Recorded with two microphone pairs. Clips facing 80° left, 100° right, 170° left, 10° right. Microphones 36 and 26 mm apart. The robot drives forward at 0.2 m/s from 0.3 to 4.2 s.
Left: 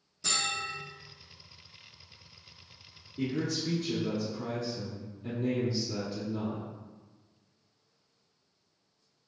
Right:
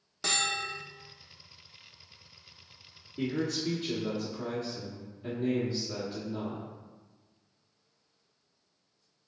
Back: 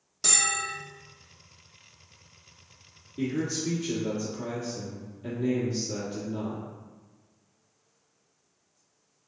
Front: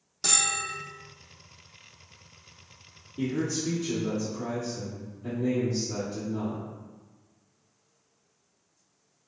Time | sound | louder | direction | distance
0.2 | a bell | right 2 dB, even | 95° right | 0.8 m
3.2 | a man speaking | right 1 dB, even | 150° right | 1.3 m